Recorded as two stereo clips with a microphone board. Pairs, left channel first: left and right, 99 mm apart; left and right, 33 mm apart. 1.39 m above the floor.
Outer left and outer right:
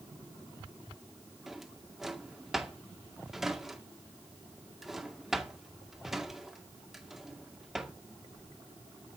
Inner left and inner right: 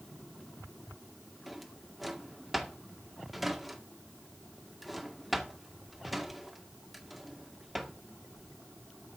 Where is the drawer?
Centre (ahead or behind), 2 m.